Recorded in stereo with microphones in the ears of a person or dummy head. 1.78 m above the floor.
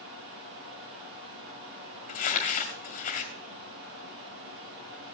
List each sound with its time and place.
0.0 s running water: 70° right (ahead or behind), 6 m
2.1 s crumpling: 30° left (ahead or behind), 2 m